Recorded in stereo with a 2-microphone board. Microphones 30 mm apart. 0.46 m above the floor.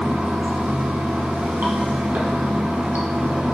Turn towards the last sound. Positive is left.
turn(degrees=-70)  # may be behind; listen again after turning